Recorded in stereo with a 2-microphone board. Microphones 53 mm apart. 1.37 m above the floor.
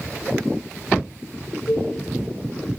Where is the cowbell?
90° left, 6 m.